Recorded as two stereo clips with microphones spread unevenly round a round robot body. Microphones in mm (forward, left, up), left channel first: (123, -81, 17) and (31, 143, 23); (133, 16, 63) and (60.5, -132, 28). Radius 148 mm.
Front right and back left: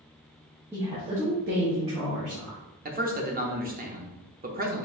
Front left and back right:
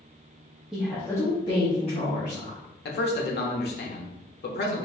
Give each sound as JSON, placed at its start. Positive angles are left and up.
{"t": 0.7, "sound": "a woman speaking", "azimuth_deg": -170, "distance_m": 0.9}
{"t": 2.9, "sound": "a man speaking", "azimuth_deg": 65, "distance_m": 0.9}